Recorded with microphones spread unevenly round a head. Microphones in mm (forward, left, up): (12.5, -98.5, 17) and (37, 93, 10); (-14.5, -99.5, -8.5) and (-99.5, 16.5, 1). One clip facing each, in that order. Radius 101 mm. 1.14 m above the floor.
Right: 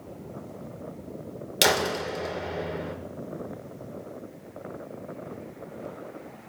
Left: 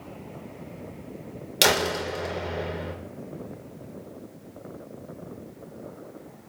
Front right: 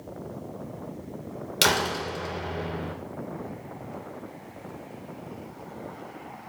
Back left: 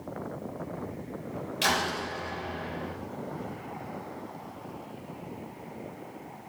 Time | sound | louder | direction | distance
1.6 | a door slam | left 1 dB, front right 4 dB | 10° right | 2.5 m